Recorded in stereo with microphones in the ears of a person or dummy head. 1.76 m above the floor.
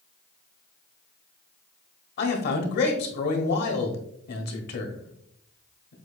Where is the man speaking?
60° left (ahead or behind), 1.0 m.